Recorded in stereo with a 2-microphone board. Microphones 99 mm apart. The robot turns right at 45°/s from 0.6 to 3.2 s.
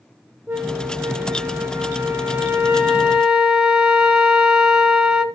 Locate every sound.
0.5 s a flute: 20° right (ahead or behind), 1.1 m; by 5.2 s 5° right (ahead or behind), 1.1 m